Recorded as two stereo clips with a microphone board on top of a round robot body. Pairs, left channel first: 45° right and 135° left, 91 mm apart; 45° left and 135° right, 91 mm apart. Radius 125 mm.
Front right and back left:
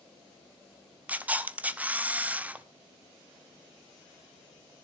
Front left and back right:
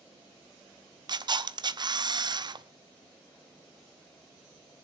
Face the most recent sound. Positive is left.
turn(degrees=-155)